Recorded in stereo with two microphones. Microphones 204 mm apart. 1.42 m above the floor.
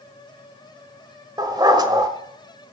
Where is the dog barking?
20° right (ahead or behind), 1.5 m.